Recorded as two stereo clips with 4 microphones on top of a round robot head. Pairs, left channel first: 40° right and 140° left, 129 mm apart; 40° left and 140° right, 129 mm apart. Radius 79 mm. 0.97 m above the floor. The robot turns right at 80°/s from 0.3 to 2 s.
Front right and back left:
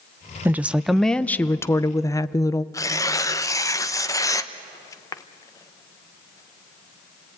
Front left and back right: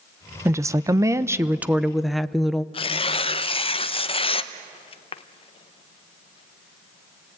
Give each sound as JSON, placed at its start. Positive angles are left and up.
{"t": 0.5, "sound": "a woman speaking", "azimuth_deg": -170, "distance_m": 0.6}
{"t": 2.7, "sound": "tearing paper", "azimuth_deg": 15, "distance_m": 0.9}